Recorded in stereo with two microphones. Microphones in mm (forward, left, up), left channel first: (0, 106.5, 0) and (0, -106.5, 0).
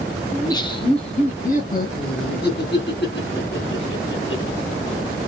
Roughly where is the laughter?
Centre.